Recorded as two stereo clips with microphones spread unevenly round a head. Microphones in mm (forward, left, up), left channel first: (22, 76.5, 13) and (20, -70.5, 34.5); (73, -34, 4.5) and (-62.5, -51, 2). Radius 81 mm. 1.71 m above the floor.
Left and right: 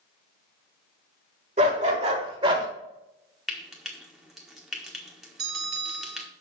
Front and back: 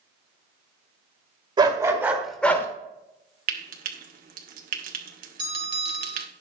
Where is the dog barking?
120° right, 2 m; by 2.7 s 50° right, 1.7 m.